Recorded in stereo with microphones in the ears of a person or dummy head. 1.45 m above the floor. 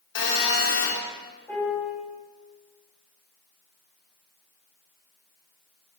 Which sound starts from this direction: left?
A phone buzzing, at 0.1 s.